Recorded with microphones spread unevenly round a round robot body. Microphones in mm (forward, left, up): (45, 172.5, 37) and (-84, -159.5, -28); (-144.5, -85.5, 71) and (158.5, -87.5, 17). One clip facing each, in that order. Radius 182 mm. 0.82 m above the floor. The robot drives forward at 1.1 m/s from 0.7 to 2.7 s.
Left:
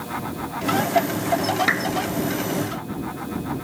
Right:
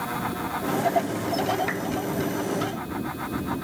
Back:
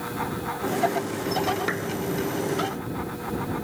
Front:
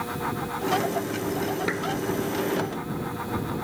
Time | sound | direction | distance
1.7 | a clap | 90° left | ?